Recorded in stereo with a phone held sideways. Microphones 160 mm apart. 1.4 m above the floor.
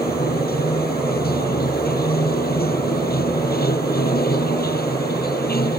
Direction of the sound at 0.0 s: 75° left (ahead or behind).